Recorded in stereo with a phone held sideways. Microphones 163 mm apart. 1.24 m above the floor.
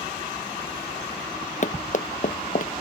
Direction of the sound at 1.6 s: 50° left (ahead or behind).